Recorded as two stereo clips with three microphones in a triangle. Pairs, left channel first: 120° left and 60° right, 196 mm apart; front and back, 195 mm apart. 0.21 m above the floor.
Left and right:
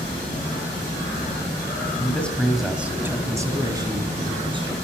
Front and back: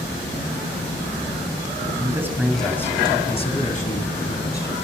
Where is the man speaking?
175° left, 1.7 m; by 4.7 s 5° right, 3 m.